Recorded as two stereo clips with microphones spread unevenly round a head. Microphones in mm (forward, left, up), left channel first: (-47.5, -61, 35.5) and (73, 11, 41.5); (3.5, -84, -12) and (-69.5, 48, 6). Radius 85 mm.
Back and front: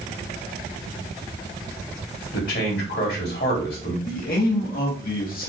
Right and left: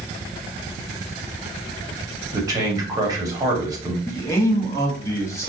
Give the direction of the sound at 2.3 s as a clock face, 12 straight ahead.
6 o'clock.